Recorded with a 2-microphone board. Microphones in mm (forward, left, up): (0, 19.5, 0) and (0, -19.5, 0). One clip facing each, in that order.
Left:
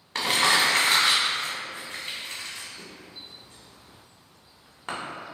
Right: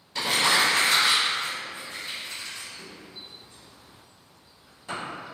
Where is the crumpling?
60° left (ahead or behind), 0.8 m.